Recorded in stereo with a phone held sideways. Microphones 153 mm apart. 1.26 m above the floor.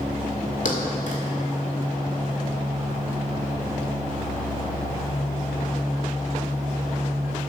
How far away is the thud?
About 1.7 m.